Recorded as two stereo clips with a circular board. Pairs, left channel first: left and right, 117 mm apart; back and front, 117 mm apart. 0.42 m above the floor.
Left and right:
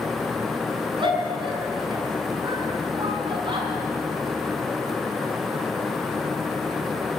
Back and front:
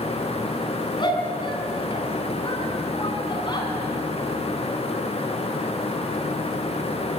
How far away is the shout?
About 5 m.